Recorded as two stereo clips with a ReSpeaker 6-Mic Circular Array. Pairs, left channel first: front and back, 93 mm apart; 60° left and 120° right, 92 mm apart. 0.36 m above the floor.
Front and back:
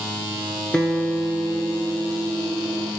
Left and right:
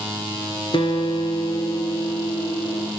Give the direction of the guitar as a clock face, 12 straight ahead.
9 o'clock.